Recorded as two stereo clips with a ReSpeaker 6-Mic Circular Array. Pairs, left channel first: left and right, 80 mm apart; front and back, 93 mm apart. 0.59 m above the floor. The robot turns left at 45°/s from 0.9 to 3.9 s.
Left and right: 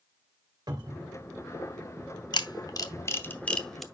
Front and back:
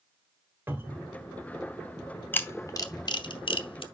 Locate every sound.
0.7 s a cupboard door: 115° right, 2.5 m; by 1.1 s 125° right, 2.5 m
2.3 s a camera shutter: 70° left, 0.8 m; by 3.8 s straight ahead, 0.8 m